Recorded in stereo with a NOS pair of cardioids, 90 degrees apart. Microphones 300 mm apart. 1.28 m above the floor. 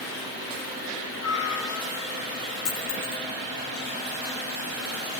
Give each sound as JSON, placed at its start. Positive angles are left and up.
{"t": 1.2, "sound": "a cat meowing", "azimuth_deg": 65, "distance_m": 2.0}
{"t": 2.6, "sound": "a dropped coin", "azimuth_deg": 60, "distance_m": 5.0}